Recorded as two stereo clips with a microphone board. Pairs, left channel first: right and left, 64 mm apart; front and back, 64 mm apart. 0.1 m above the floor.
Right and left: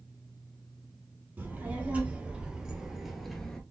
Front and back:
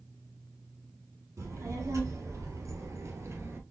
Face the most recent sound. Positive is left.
turn(degrees=-165)